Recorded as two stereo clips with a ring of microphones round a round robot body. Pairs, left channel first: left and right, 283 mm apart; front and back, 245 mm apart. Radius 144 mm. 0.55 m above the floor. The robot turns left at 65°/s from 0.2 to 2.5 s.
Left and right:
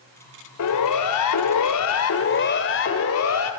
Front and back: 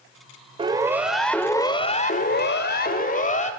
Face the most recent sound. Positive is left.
turn(degrees=60)